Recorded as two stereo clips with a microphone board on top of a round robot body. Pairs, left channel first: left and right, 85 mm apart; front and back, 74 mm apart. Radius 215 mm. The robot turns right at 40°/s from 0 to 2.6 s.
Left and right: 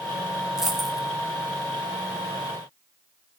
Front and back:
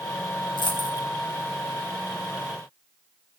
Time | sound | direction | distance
0.6 | a dropped coin | 5° right | 2.5 m